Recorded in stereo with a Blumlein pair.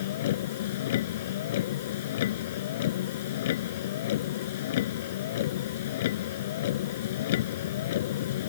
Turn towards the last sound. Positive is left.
turn(degrees=55)